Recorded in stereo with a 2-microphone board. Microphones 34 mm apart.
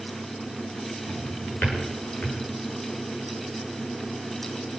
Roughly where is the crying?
No crying in this recording.